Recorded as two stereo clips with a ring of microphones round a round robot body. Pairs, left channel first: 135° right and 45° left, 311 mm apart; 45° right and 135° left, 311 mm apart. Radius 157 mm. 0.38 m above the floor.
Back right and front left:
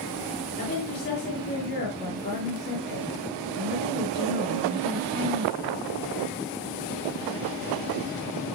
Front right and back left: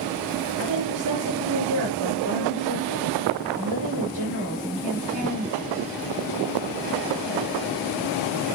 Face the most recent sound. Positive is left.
turn(degrees=165)